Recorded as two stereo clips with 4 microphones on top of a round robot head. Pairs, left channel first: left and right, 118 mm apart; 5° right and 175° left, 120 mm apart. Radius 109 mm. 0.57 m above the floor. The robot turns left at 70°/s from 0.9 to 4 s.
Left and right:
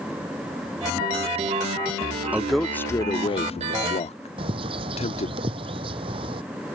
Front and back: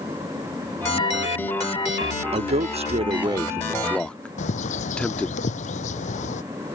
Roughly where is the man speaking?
Behind.